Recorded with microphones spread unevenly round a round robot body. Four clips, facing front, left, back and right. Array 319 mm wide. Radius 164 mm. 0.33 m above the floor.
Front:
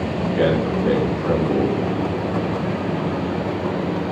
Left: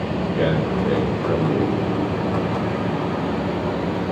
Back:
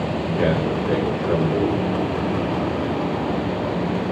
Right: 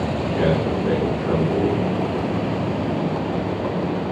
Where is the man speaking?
10° left, 8 m.